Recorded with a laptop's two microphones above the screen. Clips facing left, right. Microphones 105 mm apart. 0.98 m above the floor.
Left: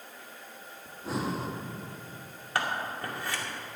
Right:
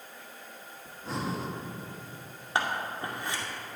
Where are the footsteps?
No footsteps in this recording.